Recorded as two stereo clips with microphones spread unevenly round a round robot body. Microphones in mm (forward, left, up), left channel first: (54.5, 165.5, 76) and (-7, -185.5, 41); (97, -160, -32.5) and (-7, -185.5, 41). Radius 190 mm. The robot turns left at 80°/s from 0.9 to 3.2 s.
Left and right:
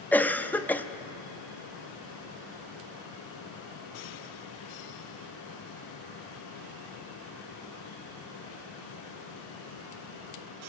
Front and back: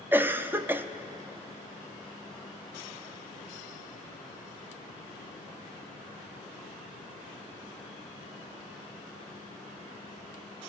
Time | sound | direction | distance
0.1 | a cough | 10° right | 0.6 m